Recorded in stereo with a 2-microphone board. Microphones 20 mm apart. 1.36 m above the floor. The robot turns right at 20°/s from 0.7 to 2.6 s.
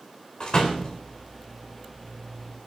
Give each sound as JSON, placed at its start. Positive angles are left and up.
{"t": 0.4, "sound": "a door slam", "side_deg": 45, "distance_m": 4.0}